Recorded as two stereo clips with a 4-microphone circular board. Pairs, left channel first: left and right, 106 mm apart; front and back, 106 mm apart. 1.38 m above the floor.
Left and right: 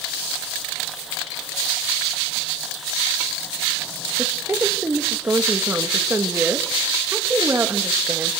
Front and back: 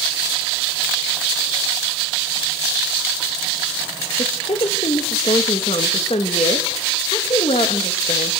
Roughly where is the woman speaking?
Ahead.